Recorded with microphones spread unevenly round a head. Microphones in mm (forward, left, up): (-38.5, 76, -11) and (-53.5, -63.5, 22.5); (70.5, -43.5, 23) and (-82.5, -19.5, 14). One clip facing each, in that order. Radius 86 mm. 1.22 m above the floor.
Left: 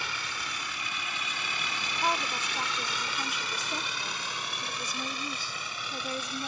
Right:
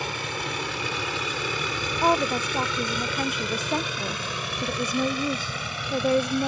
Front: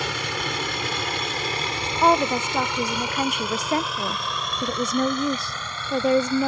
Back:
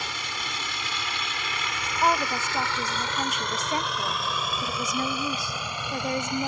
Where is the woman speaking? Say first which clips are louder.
Right 9 dB, front 6 dB; 40° right.